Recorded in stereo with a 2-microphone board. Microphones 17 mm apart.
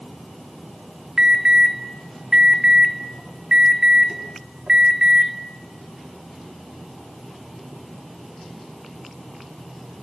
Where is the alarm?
60° right (ahead or behind), 3 m.